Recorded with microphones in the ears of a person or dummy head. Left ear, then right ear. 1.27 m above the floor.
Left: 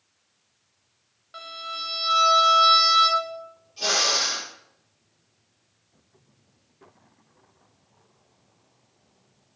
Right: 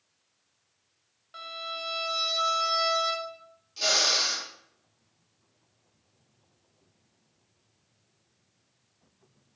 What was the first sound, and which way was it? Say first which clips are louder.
A violin: left 3 dB; centre (ahead or behind).